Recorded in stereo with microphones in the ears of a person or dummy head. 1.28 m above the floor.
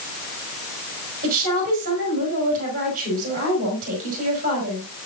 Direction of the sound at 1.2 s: 40° right (ahead or behind).